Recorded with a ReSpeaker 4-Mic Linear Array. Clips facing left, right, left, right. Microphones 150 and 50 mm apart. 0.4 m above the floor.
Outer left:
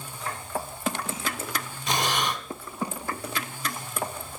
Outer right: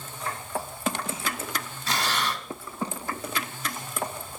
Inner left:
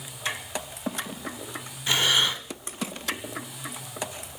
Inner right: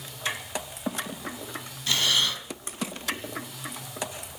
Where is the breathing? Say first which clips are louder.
Outer left 2 dB, inner left 2 dB; 20° left (ahead or behind), 1.2 m.